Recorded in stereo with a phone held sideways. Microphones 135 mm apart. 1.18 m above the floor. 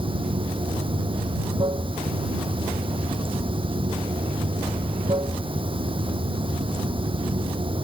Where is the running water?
40° right (ahead or behind).